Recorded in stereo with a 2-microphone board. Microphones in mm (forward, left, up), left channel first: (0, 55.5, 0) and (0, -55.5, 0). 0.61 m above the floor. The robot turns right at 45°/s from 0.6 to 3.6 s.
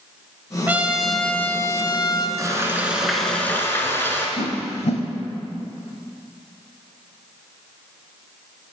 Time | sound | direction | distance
0.7 | a trumpet | 20° right | 0.8 m
2.4 | frying | 35° right | 1.7 m
4.4 | a whoosh | 70° left (ahead or behind) | 1.2 m